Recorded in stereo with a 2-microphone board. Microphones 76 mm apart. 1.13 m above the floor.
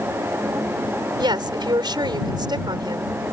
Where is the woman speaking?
75° right (ahead or behind).